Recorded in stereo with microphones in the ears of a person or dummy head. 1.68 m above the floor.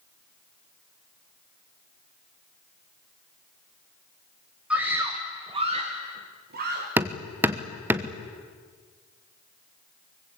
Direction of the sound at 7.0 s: 15° right (ahead or behind).